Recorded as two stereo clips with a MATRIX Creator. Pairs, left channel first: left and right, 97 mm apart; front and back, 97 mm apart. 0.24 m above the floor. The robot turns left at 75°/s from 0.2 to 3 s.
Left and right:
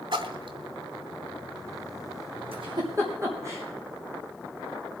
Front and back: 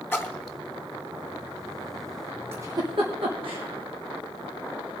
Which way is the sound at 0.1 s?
65° right.